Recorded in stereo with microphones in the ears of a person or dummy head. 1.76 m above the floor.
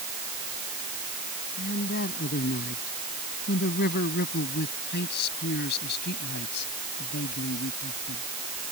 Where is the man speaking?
45° left (ahead or behind); by 8.2 s 60° left (ahead or behind).